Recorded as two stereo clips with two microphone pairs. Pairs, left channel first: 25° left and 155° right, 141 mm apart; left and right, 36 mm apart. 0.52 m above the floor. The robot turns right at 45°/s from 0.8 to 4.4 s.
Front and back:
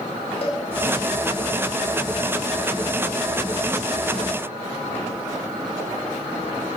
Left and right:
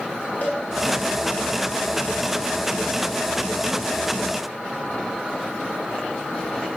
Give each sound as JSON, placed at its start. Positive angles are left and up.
{"t": 0.4, "sound": "a cowbell", "azimuth_deg": 70, "distance_m": 2.5}